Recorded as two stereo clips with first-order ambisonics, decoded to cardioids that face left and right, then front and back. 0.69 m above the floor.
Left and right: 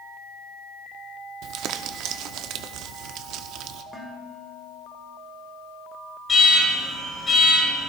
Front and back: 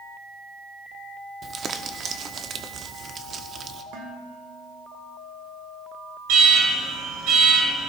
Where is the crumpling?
125° right, 0.7 m.